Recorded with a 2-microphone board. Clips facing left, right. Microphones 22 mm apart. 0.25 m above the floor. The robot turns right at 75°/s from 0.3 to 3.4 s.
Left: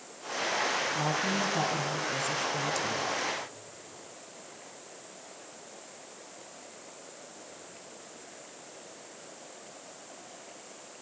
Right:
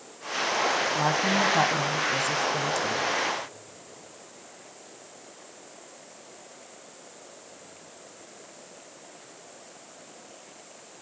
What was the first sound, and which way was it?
A woman speaking, 140° right.